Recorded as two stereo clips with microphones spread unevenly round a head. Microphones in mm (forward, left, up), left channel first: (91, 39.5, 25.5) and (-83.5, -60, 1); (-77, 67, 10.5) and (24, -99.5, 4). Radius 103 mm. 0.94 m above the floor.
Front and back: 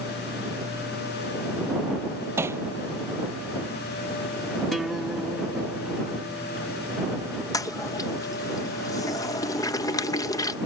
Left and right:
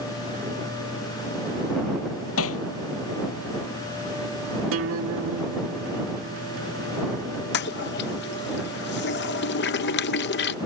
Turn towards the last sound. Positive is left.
turn(degrees=105)